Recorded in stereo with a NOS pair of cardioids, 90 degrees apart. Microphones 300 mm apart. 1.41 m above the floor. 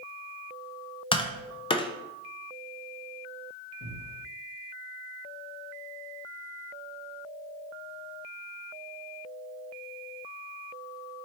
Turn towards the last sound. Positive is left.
turn(degrees=40)